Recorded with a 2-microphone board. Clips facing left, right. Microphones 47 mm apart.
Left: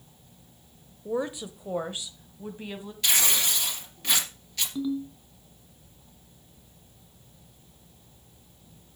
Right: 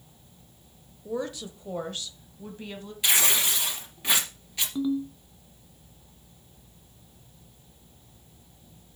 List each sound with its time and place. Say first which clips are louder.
1.1 s a woman speaking: left 2 dB; 20° left (ahead or behind), 0.8 m; by 2.9 s 10° left (ahead or behind), 1.7 m
3.0 s tearing paper: right 2 dB; 15° right (ahead or behind), 2.5 m
4.8 s a ringtone: right 3 dB; 15° right (ahead or behind), 1.4 m